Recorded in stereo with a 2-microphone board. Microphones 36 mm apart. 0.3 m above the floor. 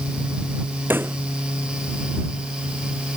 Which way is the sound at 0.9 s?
80° right.